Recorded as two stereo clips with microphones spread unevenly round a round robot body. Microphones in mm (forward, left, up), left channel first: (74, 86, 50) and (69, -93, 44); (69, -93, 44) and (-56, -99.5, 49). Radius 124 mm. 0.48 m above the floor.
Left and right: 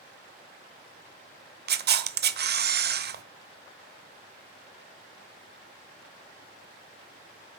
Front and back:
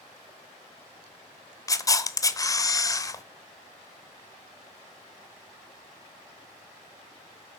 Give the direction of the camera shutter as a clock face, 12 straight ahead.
2 o'clock.